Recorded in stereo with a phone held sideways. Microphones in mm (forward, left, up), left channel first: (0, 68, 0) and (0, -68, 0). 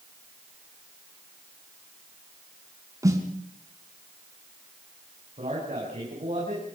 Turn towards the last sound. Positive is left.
turn(degrees=-50)  # may be behind; listen again after turning